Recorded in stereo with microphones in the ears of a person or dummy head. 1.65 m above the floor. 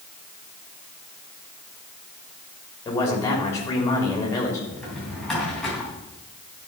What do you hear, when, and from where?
2.9 s a man speaking: 15° left (ahead or behind), 3.5 m
4.7 s a drawer: centre (ahead or behind), 3.5 m